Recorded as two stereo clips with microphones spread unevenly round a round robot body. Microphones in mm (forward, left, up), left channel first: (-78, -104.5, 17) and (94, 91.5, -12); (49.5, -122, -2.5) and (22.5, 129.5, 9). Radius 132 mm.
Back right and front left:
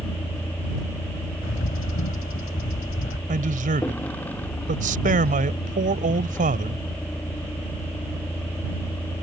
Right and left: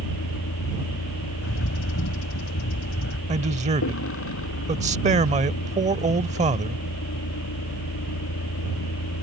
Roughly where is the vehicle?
Ahead right.